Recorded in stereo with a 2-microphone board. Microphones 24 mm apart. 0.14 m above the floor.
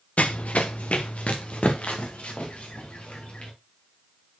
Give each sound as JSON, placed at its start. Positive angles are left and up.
{"t": 0.2, "sound": "running footsteps", "side_deg": 80, "distance_m": 0.6}